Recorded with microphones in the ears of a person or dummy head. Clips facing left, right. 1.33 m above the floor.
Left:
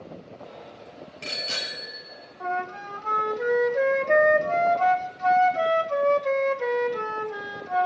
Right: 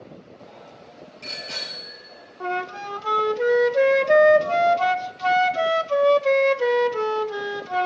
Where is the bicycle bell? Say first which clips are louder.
Left 1 dB; 85° left, 4 m; by 2.3 s 55° left (ahead or behind), 4.5 m.